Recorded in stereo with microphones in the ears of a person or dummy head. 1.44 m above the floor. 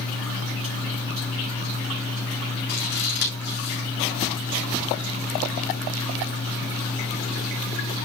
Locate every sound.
2.7 s scissors: 55° left (ahead or behind), 3.5 m